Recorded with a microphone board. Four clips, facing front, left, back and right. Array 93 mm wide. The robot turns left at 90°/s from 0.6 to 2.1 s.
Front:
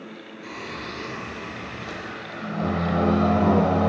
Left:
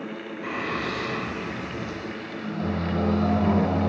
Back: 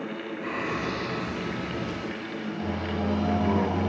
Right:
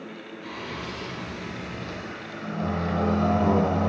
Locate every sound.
0.4 s singing: 120° left, 0.6 m; by 3.9 s 15° right, 0.6 m